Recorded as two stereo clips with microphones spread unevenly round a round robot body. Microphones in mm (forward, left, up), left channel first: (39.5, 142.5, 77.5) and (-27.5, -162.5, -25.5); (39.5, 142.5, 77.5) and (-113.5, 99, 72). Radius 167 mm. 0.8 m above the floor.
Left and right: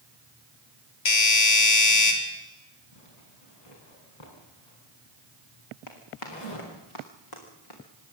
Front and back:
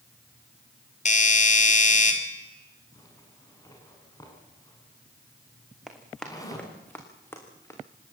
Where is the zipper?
85° left, 6.5 m.